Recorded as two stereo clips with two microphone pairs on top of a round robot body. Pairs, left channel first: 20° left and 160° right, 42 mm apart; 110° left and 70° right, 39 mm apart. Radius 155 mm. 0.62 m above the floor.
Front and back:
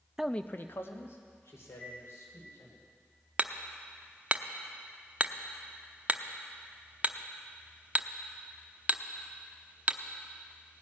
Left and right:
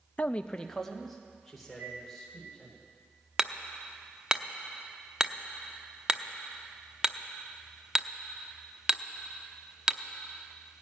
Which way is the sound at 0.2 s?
120° left.